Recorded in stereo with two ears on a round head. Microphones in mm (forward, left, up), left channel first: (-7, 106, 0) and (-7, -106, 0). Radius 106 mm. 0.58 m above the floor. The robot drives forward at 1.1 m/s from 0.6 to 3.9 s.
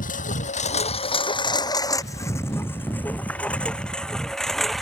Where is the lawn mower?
35° left (ahead or behind); by 4.8 s centre (ahead or behind).